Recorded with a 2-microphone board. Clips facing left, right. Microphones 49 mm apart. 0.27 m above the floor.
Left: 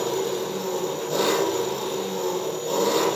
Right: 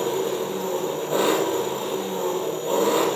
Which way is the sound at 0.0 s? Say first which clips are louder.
Right 1 dB; 20° right (ahead or behind).